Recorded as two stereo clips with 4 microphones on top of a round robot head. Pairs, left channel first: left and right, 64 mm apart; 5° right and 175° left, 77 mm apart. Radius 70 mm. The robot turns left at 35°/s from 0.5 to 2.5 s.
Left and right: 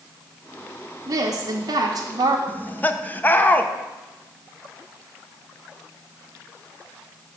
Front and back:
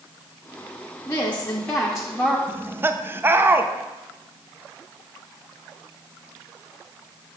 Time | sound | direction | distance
1.1 | a woman speaking | 65° right | 1.0 m
2.5 | laughter | 135° left | 0.8 m